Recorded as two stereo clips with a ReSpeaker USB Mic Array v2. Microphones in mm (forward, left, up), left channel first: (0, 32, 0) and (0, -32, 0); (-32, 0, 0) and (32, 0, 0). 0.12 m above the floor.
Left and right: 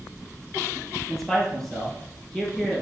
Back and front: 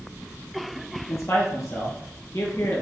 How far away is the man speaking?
About 3 m.